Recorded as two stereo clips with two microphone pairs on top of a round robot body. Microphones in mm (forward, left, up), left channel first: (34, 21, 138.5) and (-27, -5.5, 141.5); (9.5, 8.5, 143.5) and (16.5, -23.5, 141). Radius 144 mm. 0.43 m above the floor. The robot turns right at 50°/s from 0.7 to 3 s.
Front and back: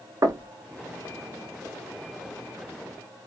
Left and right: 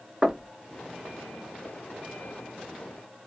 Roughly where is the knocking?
Behind right.